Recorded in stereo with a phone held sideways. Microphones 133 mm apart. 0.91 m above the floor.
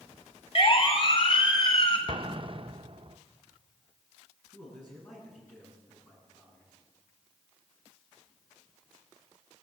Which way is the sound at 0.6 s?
45° left (ahead or behind).